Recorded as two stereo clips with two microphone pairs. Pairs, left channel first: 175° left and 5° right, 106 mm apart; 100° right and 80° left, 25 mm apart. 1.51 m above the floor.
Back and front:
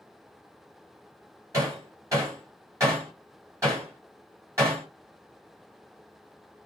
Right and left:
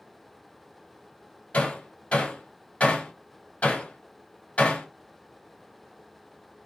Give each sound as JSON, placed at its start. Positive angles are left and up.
{"t": 1.5, "sound": "hammering", "azimuth_deg": -70, "distance_m": 5.5}